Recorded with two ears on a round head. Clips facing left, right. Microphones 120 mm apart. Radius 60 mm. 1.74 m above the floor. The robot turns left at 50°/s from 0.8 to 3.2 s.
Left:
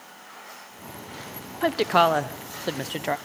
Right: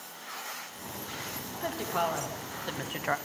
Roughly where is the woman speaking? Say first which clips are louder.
Left 11 dB; left.